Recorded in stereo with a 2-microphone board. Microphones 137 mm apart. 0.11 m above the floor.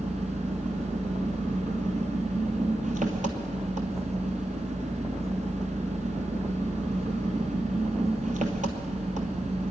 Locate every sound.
0.0 s an engine running: 65° right (ahead or behind), 1.5 m